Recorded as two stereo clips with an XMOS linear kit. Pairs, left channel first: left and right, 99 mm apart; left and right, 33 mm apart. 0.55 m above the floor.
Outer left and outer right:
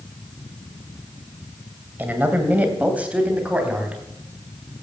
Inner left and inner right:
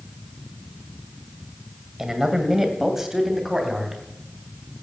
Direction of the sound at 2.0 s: 20° right (ahead or behind).